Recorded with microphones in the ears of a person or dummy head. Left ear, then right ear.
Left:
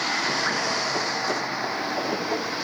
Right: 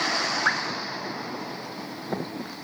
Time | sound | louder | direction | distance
0.5 | dripping | right 2 dB | 35° right (ahead or behind) | 0.6 m